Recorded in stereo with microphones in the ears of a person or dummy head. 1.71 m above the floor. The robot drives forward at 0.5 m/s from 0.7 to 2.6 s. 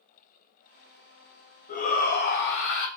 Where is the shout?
45° left (ahead or behind), 1.0 m; by 2.9 s 60° left (ahead or behind), 0.8 m.